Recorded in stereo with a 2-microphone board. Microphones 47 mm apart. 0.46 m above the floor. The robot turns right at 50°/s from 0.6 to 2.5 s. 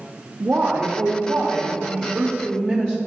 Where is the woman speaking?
85° right, 1.2 m; by 3.0 s 10° left, 1.2 m.